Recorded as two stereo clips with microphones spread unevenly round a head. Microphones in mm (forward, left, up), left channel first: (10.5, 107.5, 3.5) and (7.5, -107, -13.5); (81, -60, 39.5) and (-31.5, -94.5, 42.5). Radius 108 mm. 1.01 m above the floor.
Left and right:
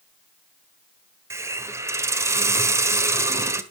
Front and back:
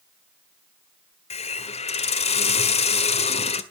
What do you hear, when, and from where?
1.3 s a hiss: 10° right, 1.6 m